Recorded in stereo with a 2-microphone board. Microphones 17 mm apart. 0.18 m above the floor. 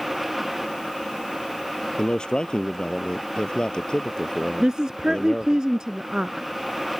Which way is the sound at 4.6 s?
45° right (ahead or behind).